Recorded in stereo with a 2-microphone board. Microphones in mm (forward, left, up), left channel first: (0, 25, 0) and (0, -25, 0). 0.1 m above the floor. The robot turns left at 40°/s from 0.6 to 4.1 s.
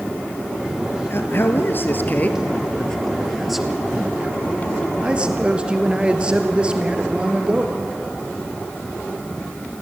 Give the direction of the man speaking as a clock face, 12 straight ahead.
9 o'clock.